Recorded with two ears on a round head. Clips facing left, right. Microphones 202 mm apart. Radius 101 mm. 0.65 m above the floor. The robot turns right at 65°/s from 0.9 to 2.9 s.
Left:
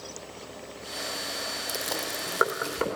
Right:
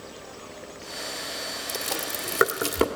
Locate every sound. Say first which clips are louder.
1.7 s chewing: right 1 dB; 10° left (ahead or behind), 1.8 m; by 2.9 s 60° right (ahead or behind), 1.8 m